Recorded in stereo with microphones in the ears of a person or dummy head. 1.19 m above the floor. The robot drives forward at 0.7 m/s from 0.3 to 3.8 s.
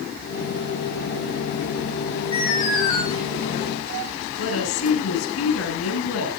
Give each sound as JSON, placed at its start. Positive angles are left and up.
{"t": 2.3, "sound": "an alarm", "side_deg": 30, "distance_m": 9.5}
{"t": 4.4, "sound": "a woman speaking", "side_deg": 75, "distance_m": 7.5}